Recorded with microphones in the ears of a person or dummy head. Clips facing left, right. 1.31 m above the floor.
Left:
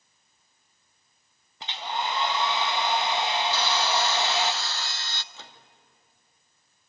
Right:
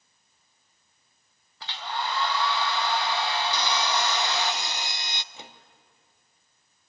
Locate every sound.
1.6 s a hair dryer: 20° left (ahead or behind), 1.8 m
3.5 s sawing: 15° right (ahead or behind), 0.5 m
5.3 s a microwave: 15° right (ahead or behind), 1.3 m